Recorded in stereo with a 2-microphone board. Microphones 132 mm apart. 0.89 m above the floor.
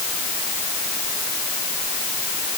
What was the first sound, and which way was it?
Only background noise.